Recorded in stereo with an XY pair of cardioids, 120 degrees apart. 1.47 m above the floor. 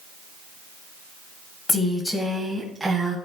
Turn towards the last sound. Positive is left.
turn(degrees=-20)